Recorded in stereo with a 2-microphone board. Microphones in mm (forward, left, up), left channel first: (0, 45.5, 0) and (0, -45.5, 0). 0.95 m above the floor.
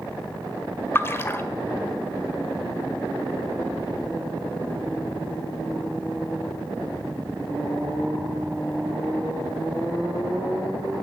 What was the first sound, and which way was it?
A splash, 25° left (ahead or behind).